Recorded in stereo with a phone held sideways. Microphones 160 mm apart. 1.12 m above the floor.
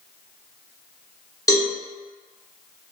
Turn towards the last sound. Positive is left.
turn(degrees=20)  # may be behind; listen again after turning